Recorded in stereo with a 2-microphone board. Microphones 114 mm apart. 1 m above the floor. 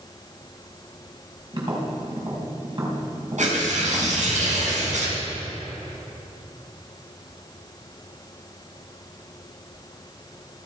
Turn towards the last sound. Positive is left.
turn(degrees=-90)